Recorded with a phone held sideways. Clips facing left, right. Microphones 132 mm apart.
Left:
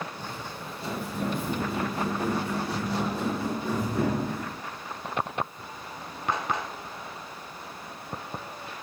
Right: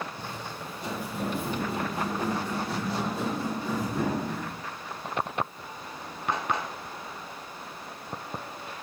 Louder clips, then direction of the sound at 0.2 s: Even; 25° right (ahead or behind).